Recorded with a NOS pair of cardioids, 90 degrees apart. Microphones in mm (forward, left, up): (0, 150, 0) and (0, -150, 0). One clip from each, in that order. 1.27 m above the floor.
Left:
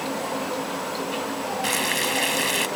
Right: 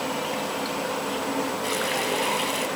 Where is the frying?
55° left.